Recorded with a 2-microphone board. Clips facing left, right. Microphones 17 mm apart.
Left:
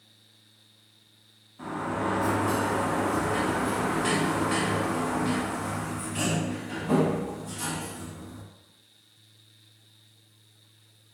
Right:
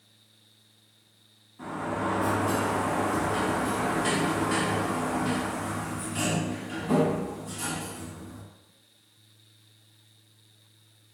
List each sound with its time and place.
1.6 s a sliding door: 10° left (ahead or behind), 1.2 m